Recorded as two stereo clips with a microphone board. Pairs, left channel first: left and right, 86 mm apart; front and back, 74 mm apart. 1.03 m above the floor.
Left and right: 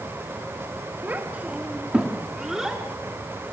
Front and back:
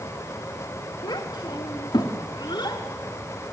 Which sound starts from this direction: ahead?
A child speaking, at 1.0 s.